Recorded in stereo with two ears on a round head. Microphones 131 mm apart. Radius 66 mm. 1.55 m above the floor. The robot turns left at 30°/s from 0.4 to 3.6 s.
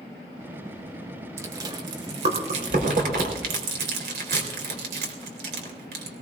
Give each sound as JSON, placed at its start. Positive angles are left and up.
{"t": 1.4, "sound": "chewing", "side_deg": -20, "distance_m": 4.0}